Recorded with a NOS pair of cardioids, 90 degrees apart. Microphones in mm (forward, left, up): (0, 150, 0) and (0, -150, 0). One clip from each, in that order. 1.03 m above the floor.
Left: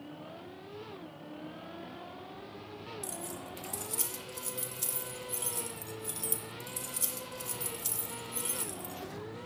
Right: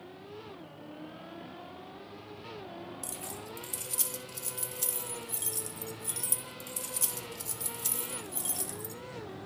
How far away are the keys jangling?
About 1.7 m.